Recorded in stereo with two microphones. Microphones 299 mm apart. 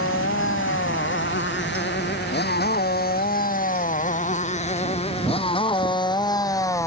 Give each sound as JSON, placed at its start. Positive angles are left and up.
{"t": 0.0, "sound": "a motorcycle", "side_deg": 45}